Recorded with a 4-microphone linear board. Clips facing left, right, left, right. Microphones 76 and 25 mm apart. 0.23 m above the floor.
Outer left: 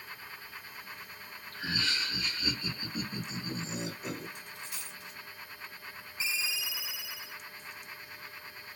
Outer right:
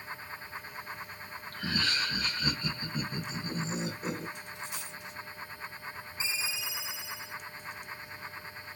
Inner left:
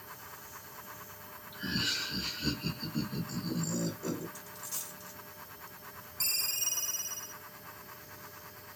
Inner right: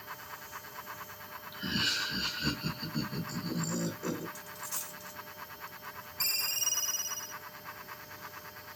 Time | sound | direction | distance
1.5 | laughter | 50° right (ahead or behind) | 1.8 m
4.3 | a dropped coin | 20° right (ahead or behind) | 1.7 m
6.2 | a ringtone | 25° right (ahead or behind) | 0.9 m